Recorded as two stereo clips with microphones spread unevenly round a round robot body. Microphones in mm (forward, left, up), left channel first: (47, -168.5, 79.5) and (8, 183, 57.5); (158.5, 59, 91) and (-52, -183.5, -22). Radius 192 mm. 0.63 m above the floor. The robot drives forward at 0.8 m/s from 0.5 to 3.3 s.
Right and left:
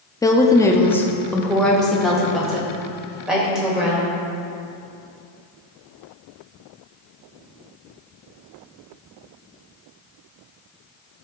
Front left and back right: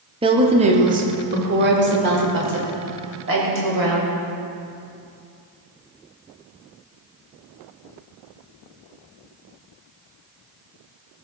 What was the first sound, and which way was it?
A woman speaking, 165° right.